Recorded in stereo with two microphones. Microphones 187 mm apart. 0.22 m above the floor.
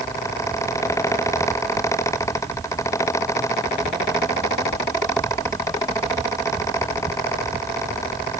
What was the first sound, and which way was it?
Only background noise.